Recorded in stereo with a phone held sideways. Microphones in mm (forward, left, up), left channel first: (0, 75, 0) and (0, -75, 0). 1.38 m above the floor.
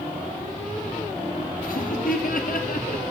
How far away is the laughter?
About 0.8 m.